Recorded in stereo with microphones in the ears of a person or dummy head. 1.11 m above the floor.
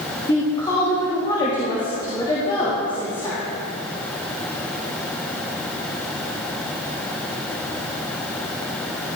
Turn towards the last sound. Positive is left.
turn(degrees=20)  # may be behind; listen again after turning